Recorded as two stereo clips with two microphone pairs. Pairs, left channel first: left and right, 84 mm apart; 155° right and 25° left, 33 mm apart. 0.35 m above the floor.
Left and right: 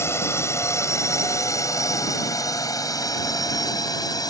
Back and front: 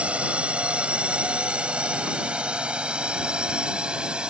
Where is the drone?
55° left; by 4.3 s 80° left.